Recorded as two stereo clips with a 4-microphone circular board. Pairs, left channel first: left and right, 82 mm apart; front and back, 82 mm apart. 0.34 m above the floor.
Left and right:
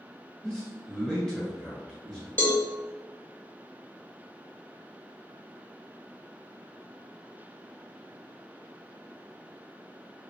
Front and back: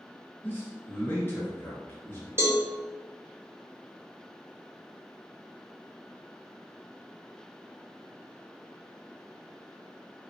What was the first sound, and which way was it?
A man speaking, 20° left.